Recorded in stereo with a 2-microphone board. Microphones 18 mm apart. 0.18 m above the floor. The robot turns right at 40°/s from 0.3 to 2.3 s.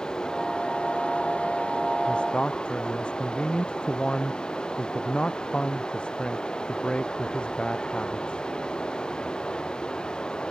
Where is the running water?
45° left; by 10.5 s 125° left.